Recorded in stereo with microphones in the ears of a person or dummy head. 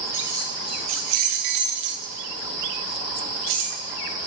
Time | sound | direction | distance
0.1 | keys jangling | 10° right (ahead or behind) | 0.9 m